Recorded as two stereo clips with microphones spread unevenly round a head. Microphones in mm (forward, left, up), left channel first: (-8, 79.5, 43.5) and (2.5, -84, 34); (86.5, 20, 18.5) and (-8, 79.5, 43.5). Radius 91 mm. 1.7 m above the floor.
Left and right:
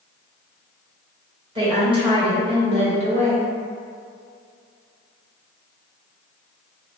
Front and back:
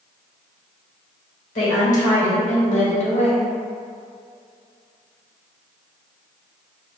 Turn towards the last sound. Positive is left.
turn(degrees=-75)